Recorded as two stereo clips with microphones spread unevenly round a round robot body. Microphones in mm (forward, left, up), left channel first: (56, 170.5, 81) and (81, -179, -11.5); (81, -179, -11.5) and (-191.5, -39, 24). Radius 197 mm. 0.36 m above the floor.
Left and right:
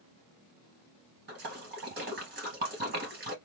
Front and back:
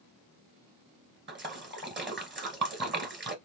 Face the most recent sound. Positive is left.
turn(degrees=-150)